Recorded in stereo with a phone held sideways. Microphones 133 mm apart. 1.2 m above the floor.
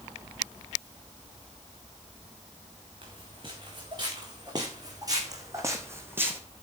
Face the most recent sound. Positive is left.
turn(degrees=-15)  # may be behind; listen again after turning